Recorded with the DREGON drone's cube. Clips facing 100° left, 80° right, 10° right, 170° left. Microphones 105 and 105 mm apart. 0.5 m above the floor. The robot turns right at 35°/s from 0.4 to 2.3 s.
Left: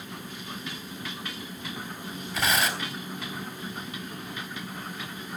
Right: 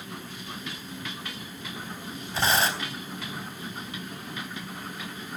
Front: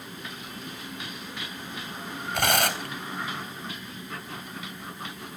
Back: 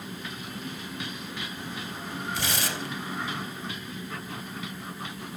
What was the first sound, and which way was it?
Tearing paper, 20° right.